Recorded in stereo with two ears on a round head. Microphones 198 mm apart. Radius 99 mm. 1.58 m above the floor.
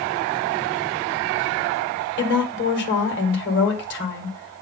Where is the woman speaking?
55° left (ahead or behind), 1.7 m.